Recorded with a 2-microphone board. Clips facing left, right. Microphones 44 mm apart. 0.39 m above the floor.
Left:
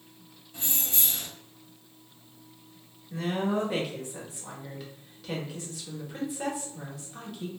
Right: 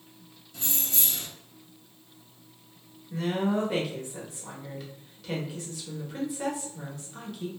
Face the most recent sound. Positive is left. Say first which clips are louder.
# right 1 dB
turn(degrees=5)  # may be behind; listen again after turning